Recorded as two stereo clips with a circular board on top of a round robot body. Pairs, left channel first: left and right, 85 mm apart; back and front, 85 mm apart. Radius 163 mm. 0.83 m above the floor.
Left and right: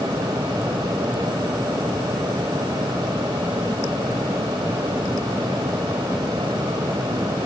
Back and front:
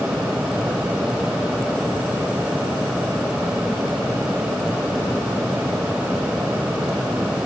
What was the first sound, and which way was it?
Only background noise.